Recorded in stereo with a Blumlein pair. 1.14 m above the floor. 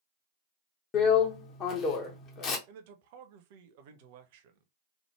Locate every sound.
0.9 s a drill: 30° left, 0.8 m
2.7 s a man speaking: 50° right, 0.7 m